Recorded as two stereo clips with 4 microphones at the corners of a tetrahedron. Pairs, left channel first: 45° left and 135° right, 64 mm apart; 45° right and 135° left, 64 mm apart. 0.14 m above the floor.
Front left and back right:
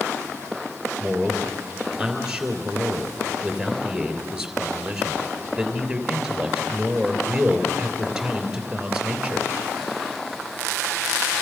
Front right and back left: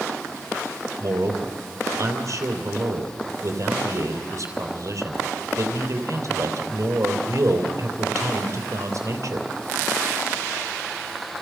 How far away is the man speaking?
About 3 m.